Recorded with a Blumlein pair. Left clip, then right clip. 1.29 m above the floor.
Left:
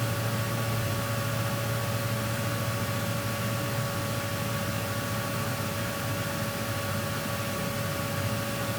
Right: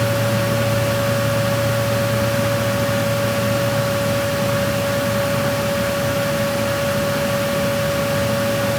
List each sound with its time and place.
0.0 s a fan: 35° right, 0.9 m